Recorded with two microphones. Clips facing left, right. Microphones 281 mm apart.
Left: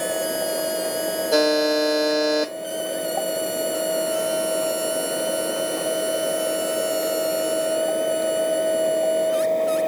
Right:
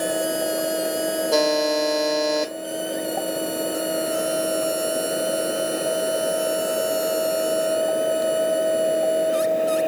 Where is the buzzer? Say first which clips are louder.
Left 3 dB; 5° left (ahead or behind), 4.5 m.